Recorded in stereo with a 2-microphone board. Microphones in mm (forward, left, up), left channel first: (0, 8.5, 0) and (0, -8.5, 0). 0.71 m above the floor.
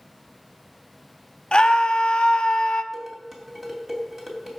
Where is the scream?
55° left (ahead or behind), 0.9 m.